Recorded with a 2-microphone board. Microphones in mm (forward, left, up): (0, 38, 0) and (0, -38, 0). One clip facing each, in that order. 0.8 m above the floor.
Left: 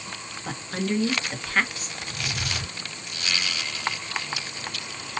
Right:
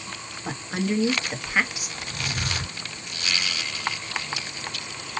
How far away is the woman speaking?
About 0.8 m.